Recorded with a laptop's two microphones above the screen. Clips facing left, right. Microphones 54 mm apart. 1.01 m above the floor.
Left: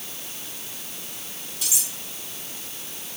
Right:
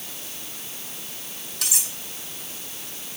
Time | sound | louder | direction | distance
1.6 | cutlery clinking | right 2 dB | 75° right (ahead or behind) | 5 m